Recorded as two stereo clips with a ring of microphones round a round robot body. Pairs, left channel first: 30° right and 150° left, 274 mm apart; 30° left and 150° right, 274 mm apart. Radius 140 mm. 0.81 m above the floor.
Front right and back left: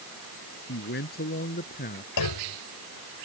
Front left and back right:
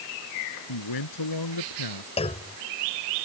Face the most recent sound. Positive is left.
turn(degrees=-40)